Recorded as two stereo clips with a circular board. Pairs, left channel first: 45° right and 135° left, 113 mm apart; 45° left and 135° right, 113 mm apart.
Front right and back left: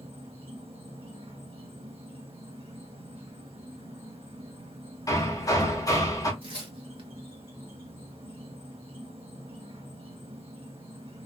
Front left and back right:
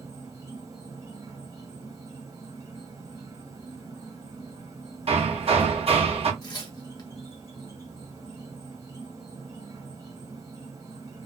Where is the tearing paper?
95° left, 0.9 m.